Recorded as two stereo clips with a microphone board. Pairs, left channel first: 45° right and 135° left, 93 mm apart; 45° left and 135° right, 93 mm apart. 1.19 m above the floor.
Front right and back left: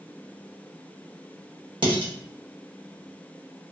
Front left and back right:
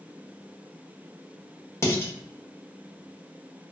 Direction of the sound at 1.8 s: 105° left.